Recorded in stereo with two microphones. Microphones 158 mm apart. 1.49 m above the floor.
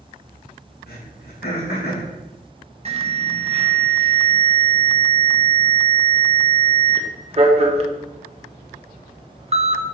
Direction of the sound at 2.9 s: 40° right (ahead or behind).